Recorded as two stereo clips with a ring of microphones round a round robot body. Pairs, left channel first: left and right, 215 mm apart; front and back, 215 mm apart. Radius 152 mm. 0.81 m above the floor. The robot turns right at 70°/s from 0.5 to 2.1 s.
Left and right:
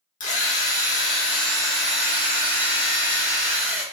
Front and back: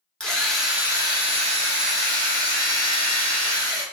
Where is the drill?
85° left, 1.1 m; by 3.8 s 160° right, 1.1 m.